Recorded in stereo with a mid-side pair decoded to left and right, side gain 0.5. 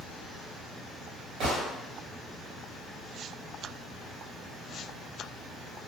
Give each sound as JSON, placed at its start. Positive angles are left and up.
{"t": 1.4, "sound": "a gunshot", "azimuth_deg": -65, "distance_m": 1.1}